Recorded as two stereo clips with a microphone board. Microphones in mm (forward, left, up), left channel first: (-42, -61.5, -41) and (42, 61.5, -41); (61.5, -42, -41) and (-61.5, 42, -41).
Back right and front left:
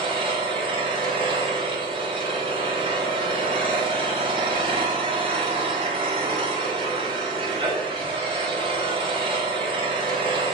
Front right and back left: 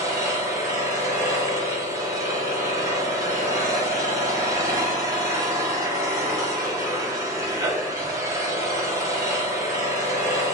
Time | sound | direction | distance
0.0 | an engine running | 90° left | 1.0 m